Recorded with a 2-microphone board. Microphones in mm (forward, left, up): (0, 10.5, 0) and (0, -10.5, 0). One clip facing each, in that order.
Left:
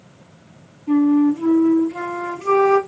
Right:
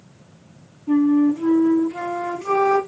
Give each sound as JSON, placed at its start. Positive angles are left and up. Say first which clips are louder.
{"t": 0.9, "sound": "a flute", "louder": "left 1 dB", "side_deg": 30, "distance_m": 2.5}